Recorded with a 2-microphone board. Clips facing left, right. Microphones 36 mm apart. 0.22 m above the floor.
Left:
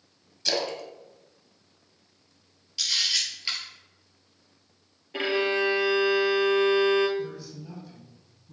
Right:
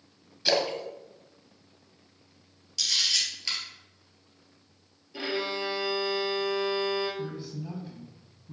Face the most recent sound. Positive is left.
turn(degrees=-30)  # may be behind; listen again after turning